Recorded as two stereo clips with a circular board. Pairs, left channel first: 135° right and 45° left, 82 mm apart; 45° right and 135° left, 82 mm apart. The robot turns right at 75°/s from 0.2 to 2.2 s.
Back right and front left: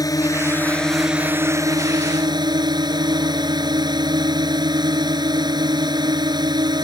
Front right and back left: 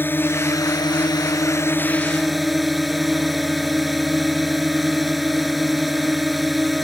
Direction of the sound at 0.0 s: 105° right.